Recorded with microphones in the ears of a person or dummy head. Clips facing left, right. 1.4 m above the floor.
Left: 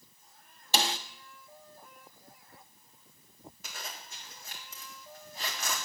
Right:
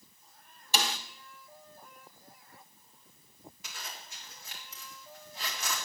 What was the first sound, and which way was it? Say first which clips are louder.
A snare drum: left 2 dB; 35° left (ahead or behind).